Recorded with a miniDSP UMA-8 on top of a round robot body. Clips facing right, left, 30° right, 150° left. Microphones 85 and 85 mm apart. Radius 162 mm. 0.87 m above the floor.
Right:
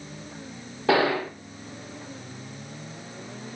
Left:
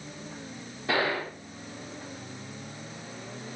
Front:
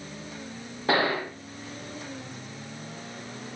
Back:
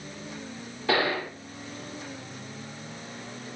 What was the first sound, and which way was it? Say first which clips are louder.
A gunshot: right 6 dB, front 1 dB; 90° right.